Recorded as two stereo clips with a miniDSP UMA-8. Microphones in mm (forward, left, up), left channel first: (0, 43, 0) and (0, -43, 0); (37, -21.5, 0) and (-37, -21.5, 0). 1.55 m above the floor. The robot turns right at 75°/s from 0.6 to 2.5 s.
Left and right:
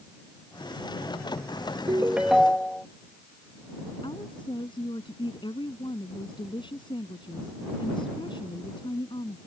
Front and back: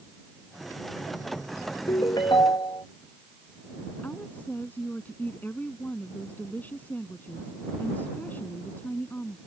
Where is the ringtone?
35° right; by 2.9 s 10° left.